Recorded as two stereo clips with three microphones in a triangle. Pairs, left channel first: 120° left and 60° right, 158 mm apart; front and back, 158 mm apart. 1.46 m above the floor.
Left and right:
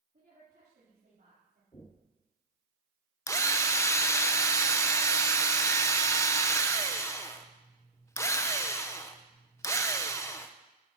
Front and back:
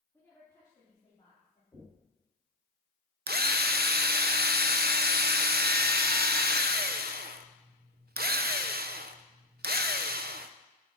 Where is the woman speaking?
80° right, 3.5 m; by 1.6 s 50° right, 5 m.